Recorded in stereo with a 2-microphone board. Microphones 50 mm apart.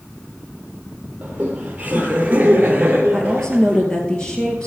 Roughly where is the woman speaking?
Centre.